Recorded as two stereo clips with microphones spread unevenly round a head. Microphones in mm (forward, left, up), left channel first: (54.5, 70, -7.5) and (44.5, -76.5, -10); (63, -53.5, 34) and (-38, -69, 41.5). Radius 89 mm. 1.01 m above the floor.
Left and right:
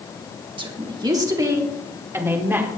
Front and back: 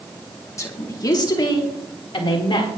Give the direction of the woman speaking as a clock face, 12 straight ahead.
1 o'clock.